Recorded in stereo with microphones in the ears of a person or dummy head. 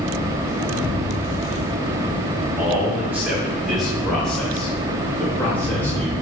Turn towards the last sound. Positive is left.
turn(degrees=5)  # may be behind; listen again after turning